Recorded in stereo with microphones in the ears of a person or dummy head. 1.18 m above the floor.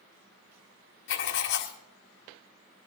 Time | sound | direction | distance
1.1 | writing | 60° left (ahead or behind) | 1.7 m